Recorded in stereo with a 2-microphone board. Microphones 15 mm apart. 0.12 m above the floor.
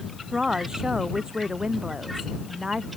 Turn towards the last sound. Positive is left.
turn(degrees=-45)  # may be behind; listen again after turning